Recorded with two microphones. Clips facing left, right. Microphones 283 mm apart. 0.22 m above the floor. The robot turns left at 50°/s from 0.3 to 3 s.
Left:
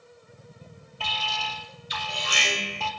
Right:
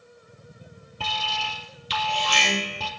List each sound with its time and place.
1.0 s an alarm: 45° right, 3.5 m; by 2.9 s 140° right, 3.5 m